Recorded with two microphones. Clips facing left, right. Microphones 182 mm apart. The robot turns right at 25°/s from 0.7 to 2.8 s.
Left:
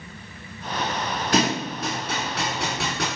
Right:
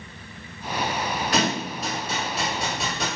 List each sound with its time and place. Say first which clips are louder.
1.3 s a thud: left 4 dB; 45° left (ahead or behind), 1.3 m; by 3.1 s 75° left (ahead or behind), 1.3 m